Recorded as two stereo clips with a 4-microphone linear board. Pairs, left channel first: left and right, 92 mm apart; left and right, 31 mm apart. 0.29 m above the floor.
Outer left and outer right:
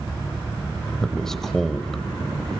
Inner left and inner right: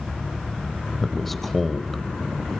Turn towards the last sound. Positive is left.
turn(degrees=5)  # may be behind; listen again after turning